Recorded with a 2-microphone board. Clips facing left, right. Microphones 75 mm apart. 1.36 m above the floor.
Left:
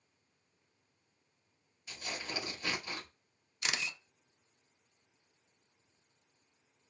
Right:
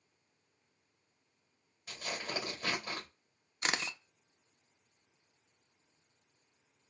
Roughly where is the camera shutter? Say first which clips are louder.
Right 3 dB; right.